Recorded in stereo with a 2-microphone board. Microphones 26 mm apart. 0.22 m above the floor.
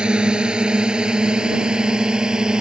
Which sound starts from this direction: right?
A drone, at 0.0 s.